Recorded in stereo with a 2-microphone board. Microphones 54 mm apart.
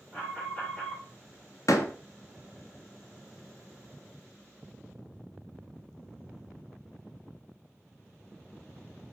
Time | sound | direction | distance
0.1 | an alarm | 15° left (ahead or behind) | 4.5 m
1.7 | a door slam | 75° left (ahead or behind) | 1.0 m